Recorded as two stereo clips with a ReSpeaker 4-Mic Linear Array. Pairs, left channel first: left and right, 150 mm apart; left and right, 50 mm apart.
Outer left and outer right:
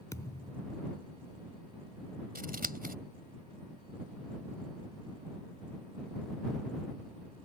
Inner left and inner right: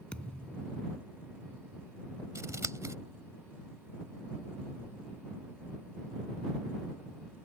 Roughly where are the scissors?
Right.